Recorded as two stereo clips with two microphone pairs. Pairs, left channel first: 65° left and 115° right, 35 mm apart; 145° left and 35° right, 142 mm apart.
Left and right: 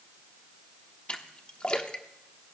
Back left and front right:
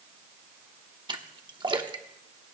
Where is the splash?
15° left, 1.1 m.